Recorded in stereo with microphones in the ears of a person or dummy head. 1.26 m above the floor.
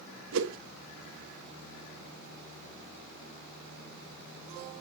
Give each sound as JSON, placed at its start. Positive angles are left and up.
{"t": 0.3, "sound": "a whoosh", "side_deg": -70, "distance_m": 1.5}